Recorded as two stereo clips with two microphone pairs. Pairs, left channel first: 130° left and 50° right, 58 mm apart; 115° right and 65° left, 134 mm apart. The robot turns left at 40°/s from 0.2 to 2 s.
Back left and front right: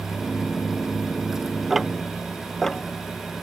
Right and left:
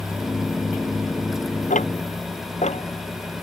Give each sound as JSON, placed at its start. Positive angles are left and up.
{"t": 1.7, "sound": "ticking", "azimuth_deg": -135}